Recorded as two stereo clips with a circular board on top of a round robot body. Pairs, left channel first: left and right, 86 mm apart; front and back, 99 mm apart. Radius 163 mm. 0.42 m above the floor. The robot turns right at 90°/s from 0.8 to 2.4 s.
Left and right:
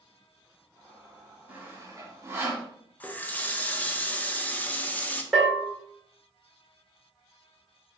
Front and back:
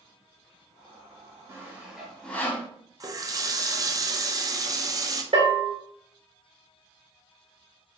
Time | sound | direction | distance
1.5 | sawing | 140° right | 1.1 m
3.0 | a running tap | 150° left | 0.6 m
5.3 | a bell | straight behind | 1.5 m